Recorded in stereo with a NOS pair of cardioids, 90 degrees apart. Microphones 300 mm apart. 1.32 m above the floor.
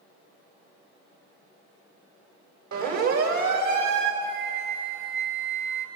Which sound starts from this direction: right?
A siren, at 2.7 s.